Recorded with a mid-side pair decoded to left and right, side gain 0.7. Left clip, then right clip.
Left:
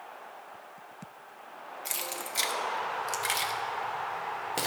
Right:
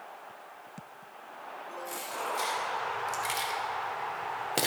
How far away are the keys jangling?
About 1.3 m.